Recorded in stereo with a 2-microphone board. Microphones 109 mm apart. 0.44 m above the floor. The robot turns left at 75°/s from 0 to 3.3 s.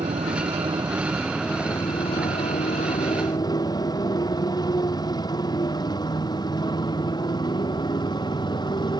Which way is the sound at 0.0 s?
80° right.